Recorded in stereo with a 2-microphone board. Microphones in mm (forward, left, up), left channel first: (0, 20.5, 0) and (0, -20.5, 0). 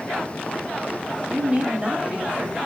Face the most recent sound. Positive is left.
turn(degrees=-30)  # may be behind; listen again after turning